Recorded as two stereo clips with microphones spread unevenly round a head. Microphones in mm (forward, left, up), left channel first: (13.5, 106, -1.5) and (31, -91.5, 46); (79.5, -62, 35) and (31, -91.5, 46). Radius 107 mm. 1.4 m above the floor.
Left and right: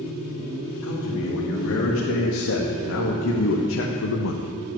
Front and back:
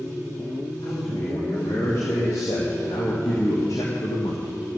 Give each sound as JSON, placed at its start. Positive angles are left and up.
{"t": 0.8, "sound": "a man speaking", "azimuth_deg": 85, "distance_m": 3.0}